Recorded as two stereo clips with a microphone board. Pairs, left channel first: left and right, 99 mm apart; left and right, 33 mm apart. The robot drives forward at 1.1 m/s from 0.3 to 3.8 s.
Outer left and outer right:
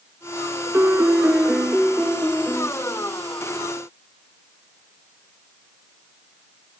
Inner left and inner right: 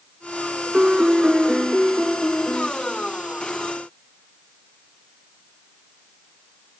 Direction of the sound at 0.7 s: 25° right (ahead or behind).